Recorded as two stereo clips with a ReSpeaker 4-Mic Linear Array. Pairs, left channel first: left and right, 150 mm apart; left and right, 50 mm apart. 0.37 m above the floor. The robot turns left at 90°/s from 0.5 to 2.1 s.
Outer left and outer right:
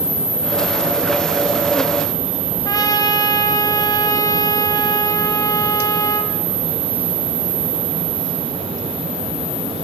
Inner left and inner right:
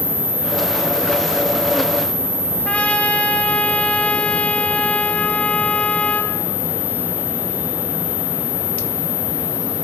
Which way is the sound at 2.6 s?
25° left (ahead or behind).